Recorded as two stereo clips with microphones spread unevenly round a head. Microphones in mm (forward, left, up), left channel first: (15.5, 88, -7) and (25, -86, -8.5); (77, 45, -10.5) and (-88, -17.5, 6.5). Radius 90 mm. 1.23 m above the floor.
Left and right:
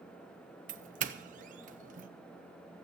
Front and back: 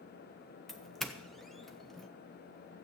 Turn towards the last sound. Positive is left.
turn(degrees=-60)